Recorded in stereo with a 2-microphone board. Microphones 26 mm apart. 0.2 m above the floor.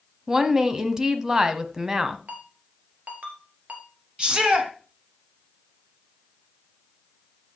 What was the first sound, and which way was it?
A woman speaking, 25° right (ahead or behind).